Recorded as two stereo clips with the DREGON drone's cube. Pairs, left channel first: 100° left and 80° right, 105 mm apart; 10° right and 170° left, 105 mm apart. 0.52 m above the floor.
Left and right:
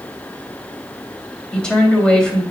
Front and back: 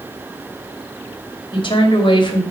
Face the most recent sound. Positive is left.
turn(degrees=20)